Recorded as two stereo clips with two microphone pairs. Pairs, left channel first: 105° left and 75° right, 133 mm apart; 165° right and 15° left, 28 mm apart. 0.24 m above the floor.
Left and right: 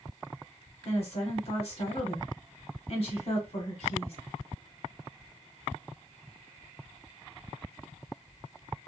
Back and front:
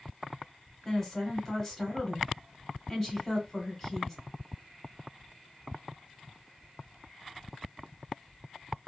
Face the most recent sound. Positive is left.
turn(degrees=120)